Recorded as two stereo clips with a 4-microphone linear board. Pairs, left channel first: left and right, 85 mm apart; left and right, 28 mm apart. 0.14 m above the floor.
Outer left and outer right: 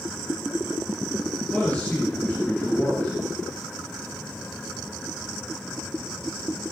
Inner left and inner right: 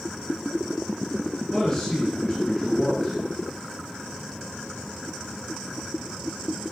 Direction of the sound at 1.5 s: 15° left (ahead or behind).